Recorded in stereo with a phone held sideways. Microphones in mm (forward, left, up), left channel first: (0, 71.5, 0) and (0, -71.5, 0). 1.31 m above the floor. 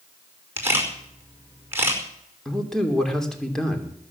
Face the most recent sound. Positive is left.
turn(degrees=5)  # may be behind; listen again after turning